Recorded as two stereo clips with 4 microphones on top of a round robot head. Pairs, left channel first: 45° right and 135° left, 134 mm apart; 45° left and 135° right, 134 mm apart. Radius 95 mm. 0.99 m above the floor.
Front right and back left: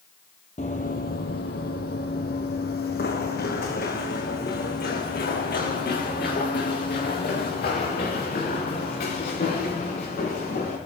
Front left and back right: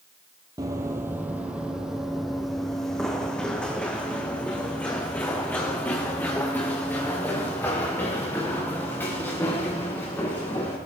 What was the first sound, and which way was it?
Running footsteps, 80° right.